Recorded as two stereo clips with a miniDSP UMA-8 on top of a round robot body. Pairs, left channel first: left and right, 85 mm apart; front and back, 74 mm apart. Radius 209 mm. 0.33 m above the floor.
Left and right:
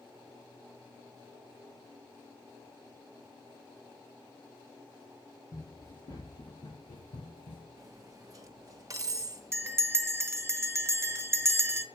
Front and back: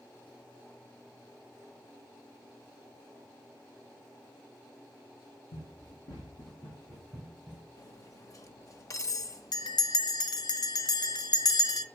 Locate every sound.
5.5 s running footsteps: 40° left, 4.5 m; by 7.7 s 85° left, 2.5 m
7.8 s cutlery clinking: 45° right, 1.0 m
9.5 s a bell: 30° right, 0.7 m